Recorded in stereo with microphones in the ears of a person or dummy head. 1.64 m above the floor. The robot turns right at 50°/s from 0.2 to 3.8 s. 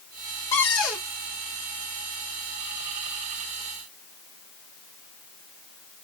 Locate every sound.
0.5 s a cupboard door: 10° left (ahead or behind), 1.1 m; by 1.1 s 15° right (ahead or behind), 1.1 m